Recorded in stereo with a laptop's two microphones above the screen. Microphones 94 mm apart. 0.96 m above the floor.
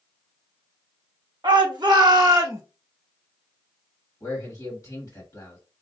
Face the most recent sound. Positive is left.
turn(degrees=40)  # may be behind; listen again after turning